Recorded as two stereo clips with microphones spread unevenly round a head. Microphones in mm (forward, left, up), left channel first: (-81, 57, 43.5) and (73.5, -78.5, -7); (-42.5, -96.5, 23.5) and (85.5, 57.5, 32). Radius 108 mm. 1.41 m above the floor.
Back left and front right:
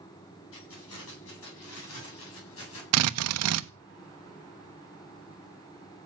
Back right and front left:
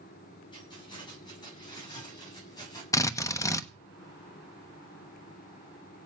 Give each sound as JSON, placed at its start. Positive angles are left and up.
{"t": 0.5, "sound": "keys jangling", "azimuth_deg": 160, "distance_m": 9.5}
{"t": 2.9, "sound": "a drill", "azimuth_deg": -55, "distance_m": 1.1}